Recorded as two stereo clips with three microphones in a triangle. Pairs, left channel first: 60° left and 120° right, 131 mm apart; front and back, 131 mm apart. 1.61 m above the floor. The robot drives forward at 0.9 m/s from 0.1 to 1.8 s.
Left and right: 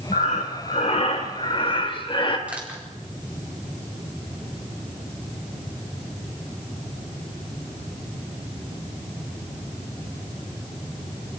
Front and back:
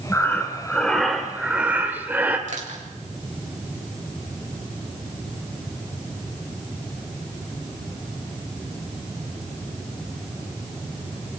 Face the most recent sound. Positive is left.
turn(degrees=160)